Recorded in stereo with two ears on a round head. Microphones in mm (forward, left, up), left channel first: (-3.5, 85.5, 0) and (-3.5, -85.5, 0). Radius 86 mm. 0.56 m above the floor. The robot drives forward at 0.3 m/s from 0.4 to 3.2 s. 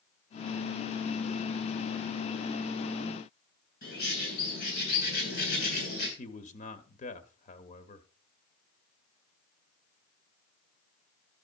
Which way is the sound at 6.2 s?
40° left (ahead or behind).